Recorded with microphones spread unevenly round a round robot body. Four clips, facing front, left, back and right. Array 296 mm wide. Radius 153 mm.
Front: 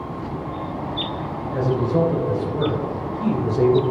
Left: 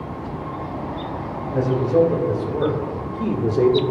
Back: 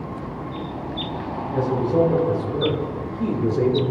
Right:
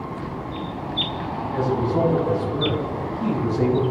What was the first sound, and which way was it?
A man speaking, 135° left.